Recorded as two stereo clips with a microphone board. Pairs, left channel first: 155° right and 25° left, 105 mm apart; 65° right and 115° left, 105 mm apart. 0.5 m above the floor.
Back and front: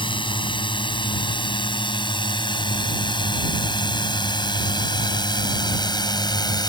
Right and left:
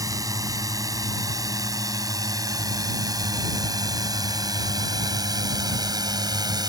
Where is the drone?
170° left; by 6.7 s 160° left.